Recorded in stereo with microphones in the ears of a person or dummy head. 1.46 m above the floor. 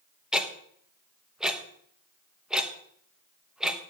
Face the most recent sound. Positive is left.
turn(degrees=0)  # may be behind; listen again after turning